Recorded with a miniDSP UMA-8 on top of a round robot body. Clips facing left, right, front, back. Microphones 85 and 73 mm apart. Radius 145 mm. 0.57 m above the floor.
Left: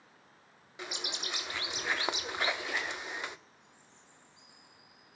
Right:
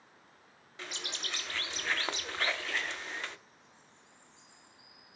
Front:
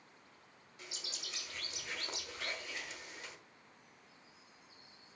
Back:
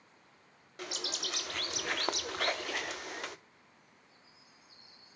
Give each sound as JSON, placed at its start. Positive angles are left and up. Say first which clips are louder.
{"t": 0.8, "sound": "a bird", "louder": "left 2 dB, back 11 dB", "azimuth_deg": 165, "distance_m": 0.8}